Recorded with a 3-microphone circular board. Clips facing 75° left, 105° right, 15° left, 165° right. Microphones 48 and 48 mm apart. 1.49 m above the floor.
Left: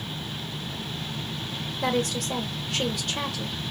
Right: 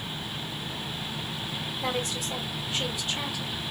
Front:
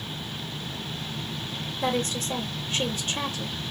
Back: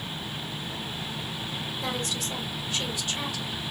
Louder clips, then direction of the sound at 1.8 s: Left 6 dB, front 7 dB; 65° left.